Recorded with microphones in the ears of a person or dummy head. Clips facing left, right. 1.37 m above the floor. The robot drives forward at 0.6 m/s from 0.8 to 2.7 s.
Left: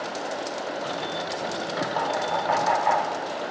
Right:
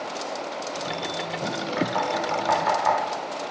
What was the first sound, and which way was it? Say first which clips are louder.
Knocking: right 2 dB; 65° right (ahead or behind).